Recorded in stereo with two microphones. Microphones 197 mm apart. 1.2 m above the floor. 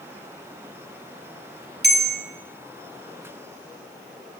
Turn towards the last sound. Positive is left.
turn(degrees=-55)  # may be behind; listen again after turning